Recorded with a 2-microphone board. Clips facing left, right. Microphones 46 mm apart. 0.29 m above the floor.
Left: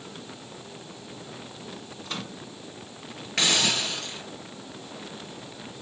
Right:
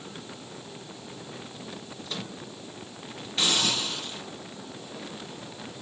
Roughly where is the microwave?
Left.